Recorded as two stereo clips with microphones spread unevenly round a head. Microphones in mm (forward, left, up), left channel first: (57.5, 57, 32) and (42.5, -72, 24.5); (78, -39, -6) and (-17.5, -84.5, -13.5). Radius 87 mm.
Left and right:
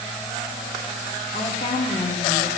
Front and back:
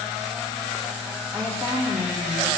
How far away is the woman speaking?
About 1.1 m.